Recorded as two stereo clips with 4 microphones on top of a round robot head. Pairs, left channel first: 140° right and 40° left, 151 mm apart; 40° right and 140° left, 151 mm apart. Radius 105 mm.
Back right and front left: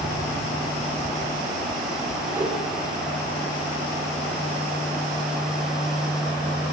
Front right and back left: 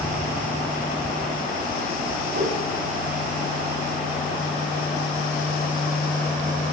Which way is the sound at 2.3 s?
115° left.